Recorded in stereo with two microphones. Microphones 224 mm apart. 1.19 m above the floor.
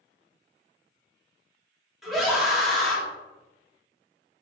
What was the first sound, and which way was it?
A scream, centre (ahead or behind).